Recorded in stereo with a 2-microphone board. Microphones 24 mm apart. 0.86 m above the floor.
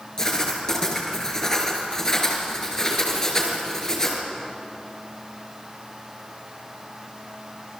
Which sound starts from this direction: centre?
Writing, at 0.2 s.